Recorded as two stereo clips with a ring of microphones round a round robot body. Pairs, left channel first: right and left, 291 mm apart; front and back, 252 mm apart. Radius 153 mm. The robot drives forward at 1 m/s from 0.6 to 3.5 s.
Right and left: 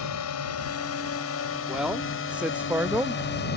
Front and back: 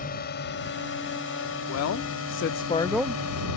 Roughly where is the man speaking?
Ahead.